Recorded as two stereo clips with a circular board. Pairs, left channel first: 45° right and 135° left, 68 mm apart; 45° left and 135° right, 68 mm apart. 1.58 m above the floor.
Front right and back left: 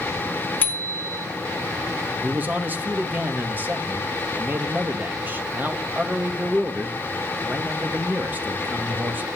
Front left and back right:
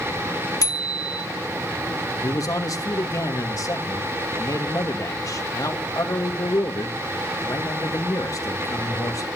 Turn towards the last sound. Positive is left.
turn(degrees=75)